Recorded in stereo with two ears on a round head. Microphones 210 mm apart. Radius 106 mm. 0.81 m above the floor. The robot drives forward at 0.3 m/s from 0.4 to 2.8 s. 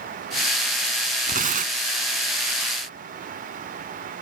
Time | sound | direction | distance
1.3 | tearing paper | 35° right (ahead or behind) | ?